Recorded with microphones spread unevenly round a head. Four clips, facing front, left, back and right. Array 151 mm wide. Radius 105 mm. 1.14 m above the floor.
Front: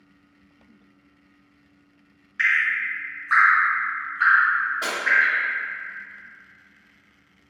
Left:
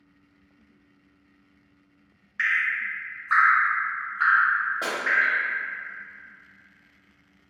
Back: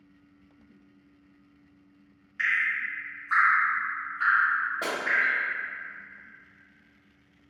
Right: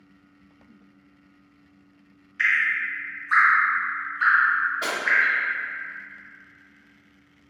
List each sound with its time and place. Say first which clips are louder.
2.4 s dripping: right 2 dB, front 5 dB; 85° left, 1.0 m
4.8 s breaking glass: right 1 dB, front 2 dB; 145° left, 1.1 m